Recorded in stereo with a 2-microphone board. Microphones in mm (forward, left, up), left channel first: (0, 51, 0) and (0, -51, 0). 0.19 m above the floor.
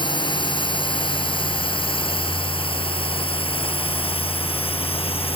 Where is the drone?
50° left (ahead or behind); by 5.4 s 70° left (ahead or behind).